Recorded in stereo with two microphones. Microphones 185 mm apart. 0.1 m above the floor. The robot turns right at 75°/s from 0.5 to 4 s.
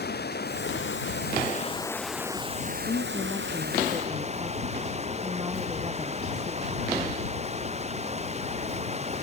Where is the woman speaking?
115° left; by 6.8 s 160° right.